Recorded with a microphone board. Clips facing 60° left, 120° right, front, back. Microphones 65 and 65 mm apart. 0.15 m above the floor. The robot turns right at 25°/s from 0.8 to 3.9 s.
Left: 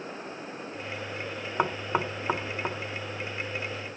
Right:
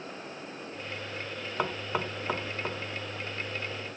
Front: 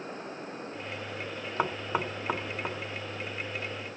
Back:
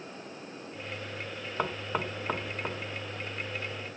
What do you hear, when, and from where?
1.6 s knocking: 50° left, 0.7 m; by 2.8 s 75° left, 0.7 m